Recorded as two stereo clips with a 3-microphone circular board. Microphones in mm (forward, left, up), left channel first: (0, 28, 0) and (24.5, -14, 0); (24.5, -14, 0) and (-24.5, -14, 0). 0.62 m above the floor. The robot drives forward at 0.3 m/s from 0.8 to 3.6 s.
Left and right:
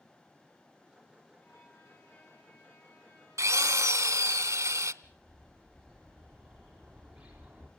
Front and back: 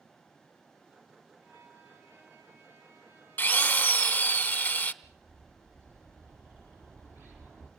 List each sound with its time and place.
1.4 s a violin: 150° left, 3 m; by 4.4 s 155° left, 3.5 m
3.4 s a drill: 55° right, 0.8 m
5.0 s a bird: 135° right, 5 m